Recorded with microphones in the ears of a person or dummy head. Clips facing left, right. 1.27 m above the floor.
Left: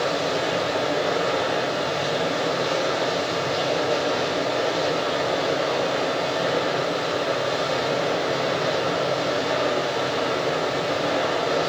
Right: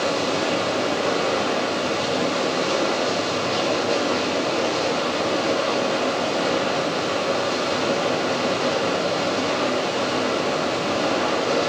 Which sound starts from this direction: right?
Running water, at 0.0 s.